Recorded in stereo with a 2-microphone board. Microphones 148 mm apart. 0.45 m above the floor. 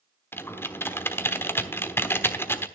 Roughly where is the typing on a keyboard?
Centre.